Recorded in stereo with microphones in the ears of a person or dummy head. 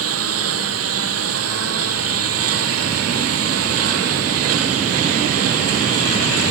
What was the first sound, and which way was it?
A lawn mower, 85° right.